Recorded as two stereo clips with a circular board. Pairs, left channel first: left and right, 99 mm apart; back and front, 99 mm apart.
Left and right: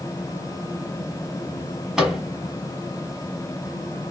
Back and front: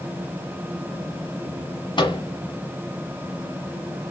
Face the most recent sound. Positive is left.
turn(degrees=-175)